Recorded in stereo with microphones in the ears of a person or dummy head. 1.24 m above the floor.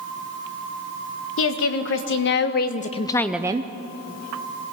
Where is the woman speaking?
70° left (ahead or behind), 2.0 m; by 3.7 s 30° right (ahead or behind), 0.7 m.